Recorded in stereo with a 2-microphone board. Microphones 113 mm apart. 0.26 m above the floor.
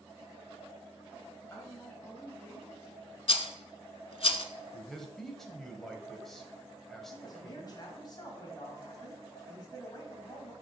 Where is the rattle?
60° left (ahead or behind), 0.5 m.